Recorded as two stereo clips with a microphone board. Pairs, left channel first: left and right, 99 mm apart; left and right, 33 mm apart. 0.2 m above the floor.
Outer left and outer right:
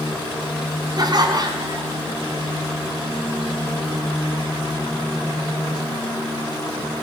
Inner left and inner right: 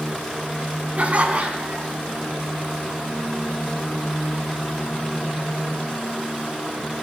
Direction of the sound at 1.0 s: 45° right (ahead or behind).